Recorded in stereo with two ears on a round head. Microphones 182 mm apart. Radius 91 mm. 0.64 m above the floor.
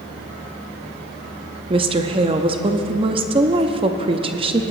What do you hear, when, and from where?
1.7 s a woman speaking: 25° right (ahead or behind), 0.5 m